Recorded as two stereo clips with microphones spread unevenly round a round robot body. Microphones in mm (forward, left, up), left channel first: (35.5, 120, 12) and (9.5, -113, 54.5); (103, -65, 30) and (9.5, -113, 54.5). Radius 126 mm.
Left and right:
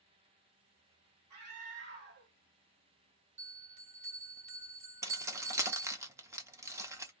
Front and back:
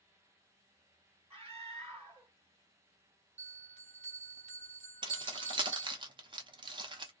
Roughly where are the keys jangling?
Behind.